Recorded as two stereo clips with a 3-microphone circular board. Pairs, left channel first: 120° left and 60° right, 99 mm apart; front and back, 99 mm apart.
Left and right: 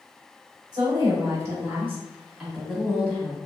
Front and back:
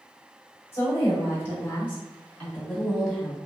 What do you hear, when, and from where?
0.7 s a woman speaking: 50° right, 1.4 m; by 3.4 s 90° left, 1.1 m